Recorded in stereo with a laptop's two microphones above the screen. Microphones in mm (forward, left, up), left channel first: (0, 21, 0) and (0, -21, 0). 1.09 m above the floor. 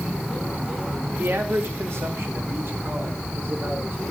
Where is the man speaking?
75° right (ahead or behind), 2.5 m; by 4.1 s 55° right (ahead or behind), 4 m.